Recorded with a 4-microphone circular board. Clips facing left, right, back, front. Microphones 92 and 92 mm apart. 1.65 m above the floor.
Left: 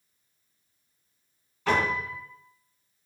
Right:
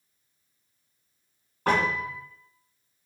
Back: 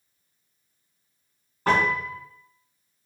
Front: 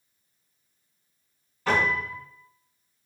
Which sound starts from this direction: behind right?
A piano, at 1.7 s.